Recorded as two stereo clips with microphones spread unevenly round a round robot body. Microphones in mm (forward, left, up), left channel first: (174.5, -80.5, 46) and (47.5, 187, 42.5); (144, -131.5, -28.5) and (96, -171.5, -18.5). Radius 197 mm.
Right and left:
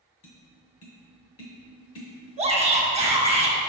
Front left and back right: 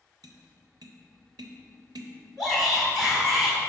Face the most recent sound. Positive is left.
turn(degrees=125)